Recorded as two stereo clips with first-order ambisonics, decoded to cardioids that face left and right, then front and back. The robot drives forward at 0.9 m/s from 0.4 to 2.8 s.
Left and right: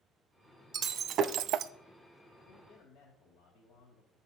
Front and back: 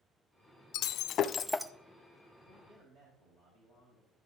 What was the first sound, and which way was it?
Breaking glass, 25° right.